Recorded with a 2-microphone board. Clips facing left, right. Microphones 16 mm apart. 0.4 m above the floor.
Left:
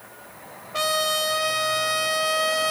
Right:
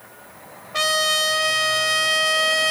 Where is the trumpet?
15° right (ahead or behind), 2 m.